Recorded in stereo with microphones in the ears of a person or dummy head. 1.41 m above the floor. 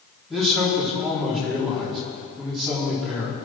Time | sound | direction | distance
0.3 | a man speaking | centre (ahead or behind) | 4 m